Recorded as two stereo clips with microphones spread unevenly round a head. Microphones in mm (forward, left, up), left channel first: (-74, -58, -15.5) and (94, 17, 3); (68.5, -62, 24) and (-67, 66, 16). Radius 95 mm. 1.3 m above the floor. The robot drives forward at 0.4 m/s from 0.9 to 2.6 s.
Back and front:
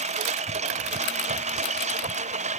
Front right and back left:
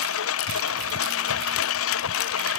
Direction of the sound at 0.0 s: 30° right.